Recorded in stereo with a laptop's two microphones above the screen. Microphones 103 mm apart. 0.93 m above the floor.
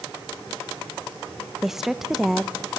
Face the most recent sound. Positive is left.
turn(degrees=-5)  # may be behind; listen again after turning